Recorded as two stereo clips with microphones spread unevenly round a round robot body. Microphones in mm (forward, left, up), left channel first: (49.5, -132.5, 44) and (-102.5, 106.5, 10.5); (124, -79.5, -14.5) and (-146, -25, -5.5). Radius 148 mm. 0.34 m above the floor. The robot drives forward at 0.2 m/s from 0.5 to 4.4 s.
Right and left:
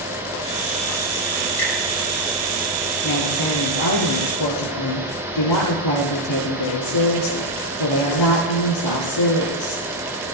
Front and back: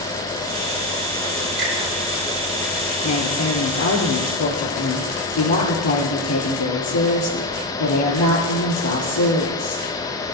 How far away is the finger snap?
About 6.5 m.